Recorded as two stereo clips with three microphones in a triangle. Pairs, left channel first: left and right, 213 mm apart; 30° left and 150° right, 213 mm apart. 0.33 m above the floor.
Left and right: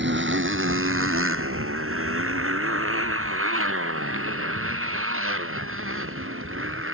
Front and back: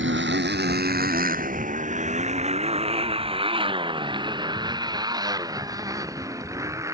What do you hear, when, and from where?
0.0 s a motorcycle: 120° right; by 6.9 s 75° right